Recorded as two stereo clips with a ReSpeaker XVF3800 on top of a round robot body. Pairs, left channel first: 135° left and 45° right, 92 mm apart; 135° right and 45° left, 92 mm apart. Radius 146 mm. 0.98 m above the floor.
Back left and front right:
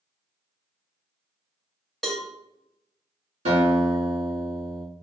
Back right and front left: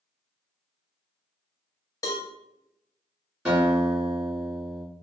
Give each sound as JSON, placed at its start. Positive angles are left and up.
{"t": 2.0, "sound": "a cowbell", "azimuth_deg": -140, "distance_m": 1.0}
{"t": 3.5, "sound": "a guitar", "azimuth_deg": -45, "distance_m": 1.6}